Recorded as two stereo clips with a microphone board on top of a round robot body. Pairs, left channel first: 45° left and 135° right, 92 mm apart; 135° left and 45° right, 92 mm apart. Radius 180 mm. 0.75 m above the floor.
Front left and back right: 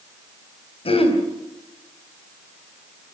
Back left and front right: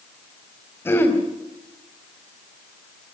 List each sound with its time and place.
0.8 s throat clearing: 65° left, 3.5 m